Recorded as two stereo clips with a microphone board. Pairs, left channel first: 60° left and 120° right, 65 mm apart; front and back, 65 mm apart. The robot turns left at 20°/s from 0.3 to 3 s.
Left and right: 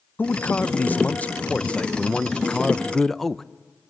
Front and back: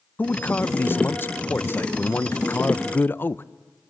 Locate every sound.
0.2 s a man speaking: 30° left, 0.5 m; by 3.4 s 25° right, 0.5 m